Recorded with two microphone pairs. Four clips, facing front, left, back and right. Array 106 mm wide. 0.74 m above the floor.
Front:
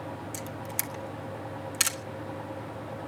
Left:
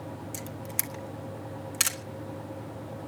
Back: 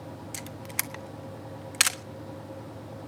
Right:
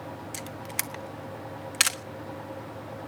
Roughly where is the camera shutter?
Behind right.